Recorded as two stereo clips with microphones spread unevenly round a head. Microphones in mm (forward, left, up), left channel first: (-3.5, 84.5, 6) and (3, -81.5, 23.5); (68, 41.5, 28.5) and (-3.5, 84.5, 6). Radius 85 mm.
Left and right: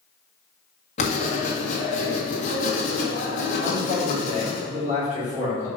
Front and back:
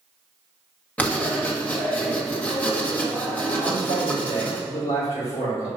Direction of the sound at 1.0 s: 40° left.